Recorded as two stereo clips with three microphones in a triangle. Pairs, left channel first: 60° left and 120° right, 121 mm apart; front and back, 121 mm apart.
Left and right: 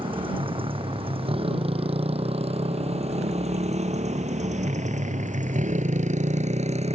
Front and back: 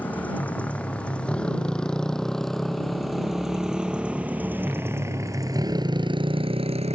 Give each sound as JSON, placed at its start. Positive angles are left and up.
{"t": 0.0, "sound": "a motorcycle", "azimuth_deg": -75}